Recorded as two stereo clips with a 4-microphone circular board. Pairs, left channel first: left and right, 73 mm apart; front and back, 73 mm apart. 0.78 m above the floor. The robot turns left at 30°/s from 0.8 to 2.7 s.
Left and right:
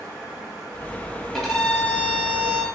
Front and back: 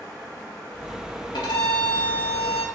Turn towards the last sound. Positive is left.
turn(degrees=-30)